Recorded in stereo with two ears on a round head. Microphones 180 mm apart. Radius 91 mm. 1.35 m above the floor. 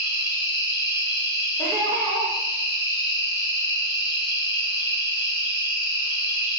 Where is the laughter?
10° left (ahead or behind), 0.6 m.